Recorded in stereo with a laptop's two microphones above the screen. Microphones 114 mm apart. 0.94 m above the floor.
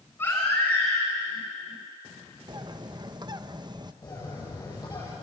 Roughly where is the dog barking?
No dog barking in this recording.